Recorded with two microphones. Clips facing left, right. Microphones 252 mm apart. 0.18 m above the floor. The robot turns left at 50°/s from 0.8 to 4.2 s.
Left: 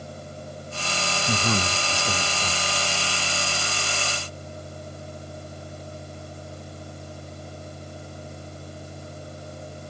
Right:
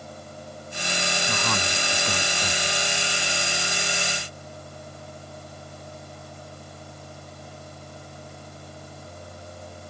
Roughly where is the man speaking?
Ahead left.